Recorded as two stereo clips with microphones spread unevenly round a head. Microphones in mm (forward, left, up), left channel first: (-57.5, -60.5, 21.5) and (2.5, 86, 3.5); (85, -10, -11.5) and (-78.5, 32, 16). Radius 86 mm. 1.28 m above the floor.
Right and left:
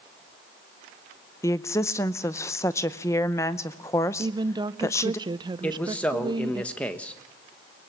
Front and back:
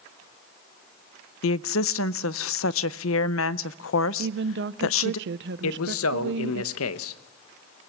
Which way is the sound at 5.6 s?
30° right.